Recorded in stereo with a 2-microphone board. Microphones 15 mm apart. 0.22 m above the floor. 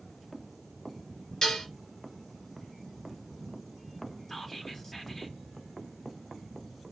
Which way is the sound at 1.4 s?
40° left (ahead or behind).